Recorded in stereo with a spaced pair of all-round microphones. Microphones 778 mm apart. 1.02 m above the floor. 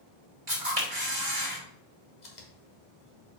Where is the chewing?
65° left (ahead or behind), 1.7 m.